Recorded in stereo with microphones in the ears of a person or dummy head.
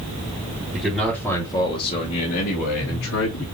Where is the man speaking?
10° right (ahead or behind), 1.7 m; by 3.4 s 80° left, 2.5 m.